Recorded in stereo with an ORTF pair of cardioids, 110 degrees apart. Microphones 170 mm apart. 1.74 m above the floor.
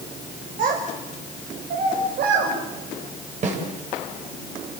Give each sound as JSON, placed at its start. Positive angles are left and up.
{"t": 0.6, "sound": "a child speaking", "azimuth_deg": -50, "distance_m": 5.0}
{"t": 3.4, "sound": "a snare drum", "azimuth_deg": -45, "distance_m": 7.5}